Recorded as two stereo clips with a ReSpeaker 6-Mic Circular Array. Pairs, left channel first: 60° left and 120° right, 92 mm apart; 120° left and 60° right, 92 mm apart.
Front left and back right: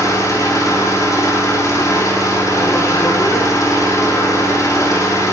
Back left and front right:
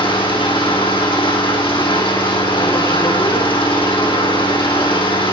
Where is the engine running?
110° left, 6.5 m.